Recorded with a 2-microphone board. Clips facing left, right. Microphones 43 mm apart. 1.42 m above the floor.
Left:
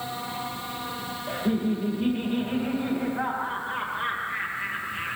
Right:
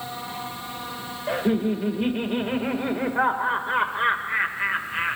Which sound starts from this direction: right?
Laughter, at 1.3 s.